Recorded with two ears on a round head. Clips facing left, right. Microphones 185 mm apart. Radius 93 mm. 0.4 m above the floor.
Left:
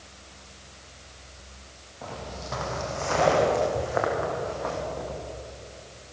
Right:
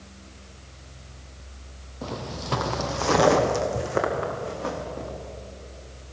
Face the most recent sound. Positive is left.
turn(degrees=-35)  # may be behind; listen again after turning